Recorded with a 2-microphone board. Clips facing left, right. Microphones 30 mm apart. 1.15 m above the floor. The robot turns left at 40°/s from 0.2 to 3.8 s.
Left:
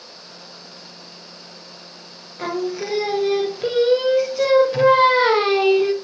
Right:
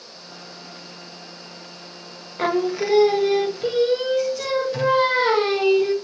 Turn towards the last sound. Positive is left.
turn(degrees=155)